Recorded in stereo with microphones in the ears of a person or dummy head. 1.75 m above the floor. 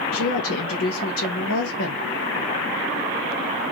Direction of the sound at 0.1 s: 80° left.